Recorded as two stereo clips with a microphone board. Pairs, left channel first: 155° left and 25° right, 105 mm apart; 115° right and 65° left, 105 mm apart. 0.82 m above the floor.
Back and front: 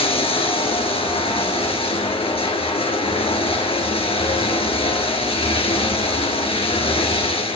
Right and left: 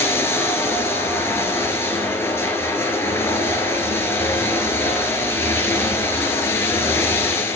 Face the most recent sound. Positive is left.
turn(degrees=180)